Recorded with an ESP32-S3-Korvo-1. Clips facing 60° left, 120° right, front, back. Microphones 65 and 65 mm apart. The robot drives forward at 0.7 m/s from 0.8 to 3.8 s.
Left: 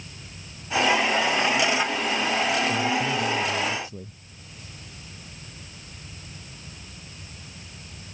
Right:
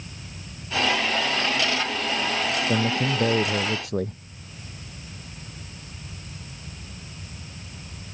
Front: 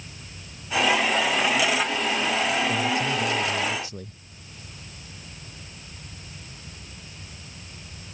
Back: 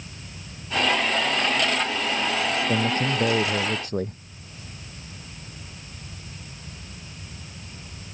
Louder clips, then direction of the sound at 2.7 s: Even, back 1 dB; 135° right.